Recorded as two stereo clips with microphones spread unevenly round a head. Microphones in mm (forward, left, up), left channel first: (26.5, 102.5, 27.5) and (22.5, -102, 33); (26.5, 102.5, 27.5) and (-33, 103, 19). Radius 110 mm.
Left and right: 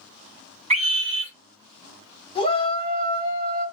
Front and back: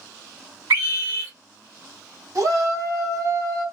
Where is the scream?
155° right, 1.6 m.